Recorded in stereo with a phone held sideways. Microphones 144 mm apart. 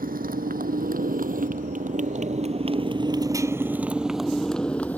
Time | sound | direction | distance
0.0 | a motorcycle | 90° right | ?